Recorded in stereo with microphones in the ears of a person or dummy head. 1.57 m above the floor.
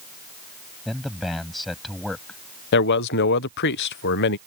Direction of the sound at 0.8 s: Centre (ahead or behind).